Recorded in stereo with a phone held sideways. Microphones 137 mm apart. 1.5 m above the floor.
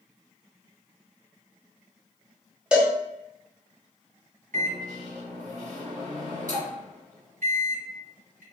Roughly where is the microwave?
Right.